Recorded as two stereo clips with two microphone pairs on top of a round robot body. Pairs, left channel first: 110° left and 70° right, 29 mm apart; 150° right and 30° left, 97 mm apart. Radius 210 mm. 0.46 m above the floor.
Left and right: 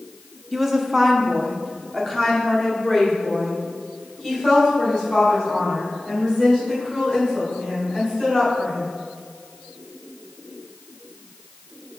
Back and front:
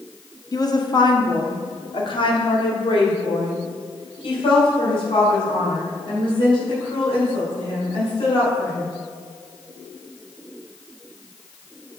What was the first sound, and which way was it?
A woman speaking, 145° right.